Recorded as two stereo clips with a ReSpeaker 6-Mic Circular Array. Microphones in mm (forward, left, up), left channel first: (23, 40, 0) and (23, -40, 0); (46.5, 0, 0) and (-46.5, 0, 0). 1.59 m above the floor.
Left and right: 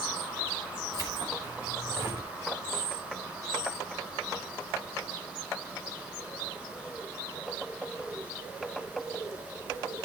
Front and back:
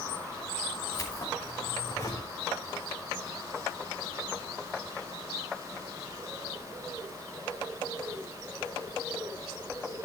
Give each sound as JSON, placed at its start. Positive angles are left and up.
{"t": 0.9, "sound": "keys jangling", "azimuth_deg": -55, "distance_m": 6.0}